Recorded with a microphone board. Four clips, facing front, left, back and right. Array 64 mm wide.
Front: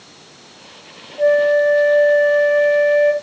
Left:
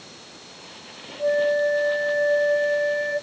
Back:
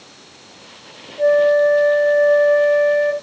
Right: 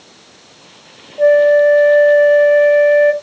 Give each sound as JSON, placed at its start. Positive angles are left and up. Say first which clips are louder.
{"t": 1.2, "sound": "a flute", "louder": "right 12 dB, even", "azimuth_deg": -80, "distance_m": 1.1}